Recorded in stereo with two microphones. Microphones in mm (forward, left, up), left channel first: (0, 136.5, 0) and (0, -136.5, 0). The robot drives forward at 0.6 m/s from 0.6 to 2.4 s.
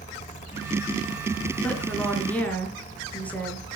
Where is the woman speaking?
5° left (ahead or behind), 3 m.